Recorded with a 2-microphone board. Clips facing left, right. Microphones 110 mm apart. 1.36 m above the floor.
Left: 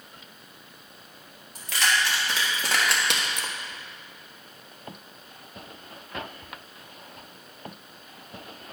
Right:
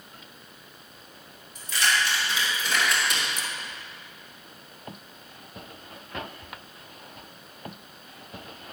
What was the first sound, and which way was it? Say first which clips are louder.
Keys jangling: even; 85° left.